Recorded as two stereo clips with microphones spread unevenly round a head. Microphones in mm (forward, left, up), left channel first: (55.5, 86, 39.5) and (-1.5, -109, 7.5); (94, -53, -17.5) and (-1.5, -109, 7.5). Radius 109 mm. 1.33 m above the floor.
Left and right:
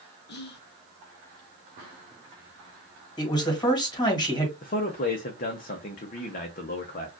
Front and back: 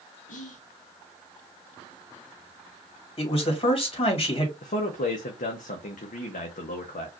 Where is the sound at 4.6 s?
25° left, 0.7 m.